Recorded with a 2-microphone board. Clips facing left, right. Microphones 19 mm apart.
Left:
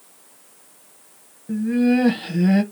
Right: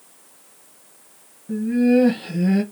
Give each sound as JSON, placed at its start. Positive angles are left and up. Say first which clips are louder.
{"t": 1.5, "sound": "laughter", "louder": "right 1 dB", "side_deg": 20, "distance_m": 1.1}